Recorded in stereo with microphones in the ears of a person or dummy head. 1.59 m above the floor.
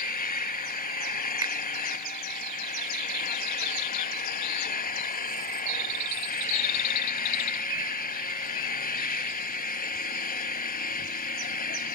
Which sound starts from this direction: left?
An engine running, at 0.0 s.